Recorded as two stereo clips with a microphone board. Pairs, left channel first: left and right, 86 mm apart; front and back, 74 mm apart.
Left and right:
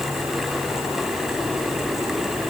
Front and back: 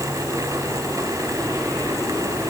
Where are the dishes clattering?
I don't hear dishes clattering.